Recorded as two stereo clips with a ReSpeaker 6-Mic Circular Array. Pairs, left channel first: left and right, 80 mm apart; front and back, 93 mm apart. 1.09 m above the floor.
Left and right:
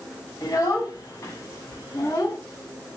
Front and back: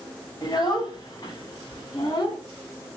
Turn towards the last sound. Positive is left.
turn(degrees=40)